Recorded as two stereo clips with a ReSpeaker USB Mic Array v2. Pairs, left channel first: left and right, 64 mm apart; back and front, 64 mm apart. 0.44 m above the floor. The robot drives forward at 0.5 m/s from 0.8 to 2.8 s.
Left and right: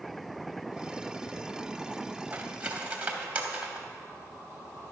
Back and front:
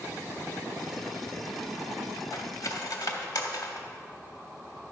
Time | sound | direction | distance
2.3 | cutlery clinking | 155° right | 1.1 m